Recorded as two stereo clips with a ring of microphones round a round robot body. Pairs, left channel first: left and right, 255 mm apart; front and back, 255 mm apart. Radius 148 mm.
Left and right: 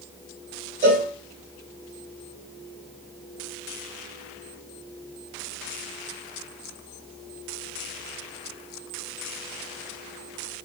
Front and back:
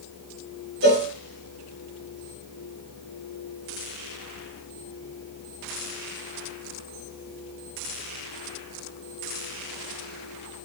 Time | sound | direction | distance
0.8 | a cowbell | 135° right | 1.2 m